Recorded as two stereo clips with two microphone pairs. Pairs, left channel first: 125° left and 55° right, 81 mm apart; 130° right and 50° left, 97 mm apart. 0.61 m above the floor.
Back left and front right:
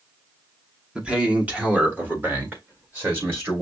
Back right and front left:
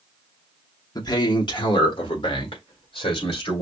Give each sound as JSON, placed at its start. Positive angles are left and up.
{"t": 0.9, "sound": "a man speaking", "azimuth_deg": -125, "distance_m": 1.1}